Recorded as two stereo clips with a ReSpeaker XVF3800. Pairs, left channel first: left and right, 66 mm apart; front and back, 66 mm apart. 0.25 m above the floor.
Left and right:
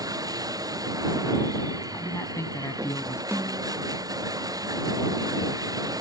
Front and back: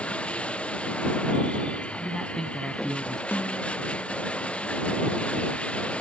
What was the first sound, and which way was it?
Running water, 70° right.